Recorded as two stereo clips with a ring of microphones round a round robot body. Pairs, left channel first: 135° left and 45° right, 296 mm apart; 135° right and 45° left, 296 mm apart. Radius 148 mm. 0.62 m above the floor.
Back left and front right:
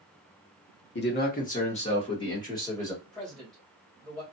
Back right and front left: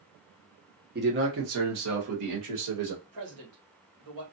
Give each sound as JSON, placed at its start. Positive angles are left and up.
{"t": 0.9, "sound": "a man speaking", "azimuth_deg": 95, "distance_m": 1.2}
{"t": 3.0, "sound": "a man speaking", "azimuth_deg": 45, "distance_m": 2.0}